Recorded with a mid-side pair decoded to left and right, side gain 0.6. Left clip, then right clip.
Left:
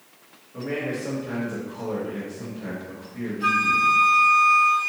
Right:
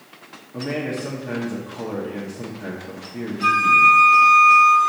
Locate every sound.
0.5 s a man speaking: 55° right, 1.7 m
3.4 s a flute: 45° right, 1.8 m